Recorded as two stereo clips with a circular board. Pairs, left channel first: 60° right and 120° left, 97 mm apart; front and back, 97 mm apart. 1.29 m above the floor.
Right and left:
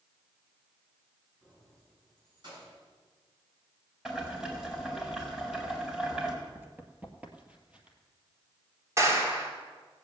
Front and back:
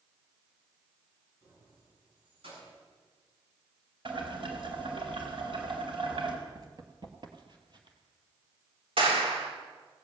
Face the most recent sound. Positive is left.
turn(degrees=180)